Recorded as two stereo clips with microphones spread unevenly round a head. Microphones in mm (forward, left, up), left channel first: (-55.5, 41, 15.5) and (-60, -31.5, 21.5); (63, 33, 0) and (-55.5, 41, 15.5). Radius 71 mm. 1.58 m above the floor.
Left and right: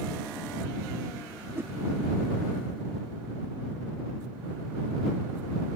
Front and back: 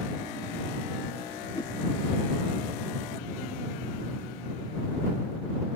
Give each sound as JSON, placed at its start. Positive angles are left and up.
{"t": 1.6, "sound": "a whoosh", "azimuth_deg": -65}